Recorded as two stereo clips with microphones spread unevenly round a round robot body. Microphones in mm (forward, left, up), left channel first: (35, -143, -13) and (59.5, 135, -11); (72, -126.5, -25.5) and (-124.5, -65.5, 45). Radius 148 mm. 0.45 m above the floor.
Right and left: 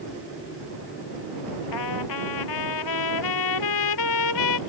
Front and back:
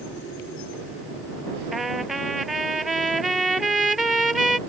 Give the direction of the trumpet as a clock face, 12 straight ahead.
4 o'clock.